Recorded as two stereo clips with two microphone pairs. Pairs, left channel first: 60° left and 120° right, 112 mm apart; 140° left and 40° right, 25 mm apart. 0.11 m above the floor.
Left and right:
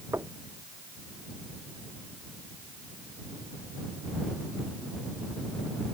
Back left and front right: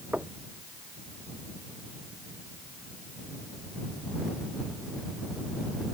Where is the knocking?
55° right.